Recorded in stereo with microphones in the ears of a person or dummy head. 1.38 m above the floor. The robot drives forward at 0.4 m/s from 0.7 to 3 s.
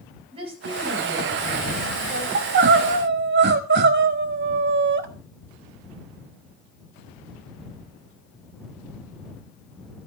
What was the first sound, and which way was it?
A woman speaking, 30° right (ahead or behind).